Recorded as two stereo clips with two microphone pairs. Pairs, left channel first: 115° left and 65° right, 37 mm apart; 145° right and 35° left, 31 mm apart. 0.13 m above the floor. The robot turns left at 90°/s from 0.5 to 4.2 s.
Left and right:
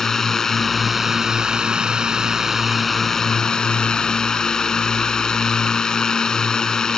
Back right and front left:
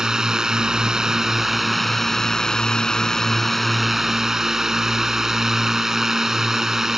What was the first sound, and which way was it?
A drone, 55° left.